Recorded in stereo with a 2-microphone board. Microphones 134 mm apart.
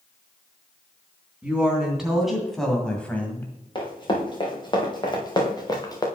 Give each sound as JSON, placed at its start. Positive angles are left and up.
{"t": 1.4, "sound": "a woman speaking", "side_deg": -5, "distance_m": 3.0}
{"t": 3.8, "sound": "running footsteps", "side_deg": 35, "distance_m": 3.5}